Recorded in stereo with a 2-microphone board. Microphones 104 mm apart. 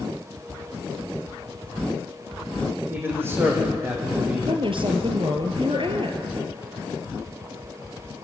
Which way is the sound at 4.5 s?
55° right (ahead or behind).